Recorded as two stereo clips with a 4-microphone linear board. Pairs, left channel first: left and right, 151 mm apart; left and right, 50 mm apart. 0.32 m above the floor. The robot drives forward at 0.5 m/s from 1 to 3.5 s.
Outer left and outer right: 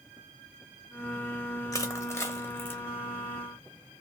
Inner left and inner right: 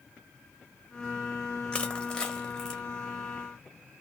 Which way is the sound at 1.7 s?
20° left (ahead or behind).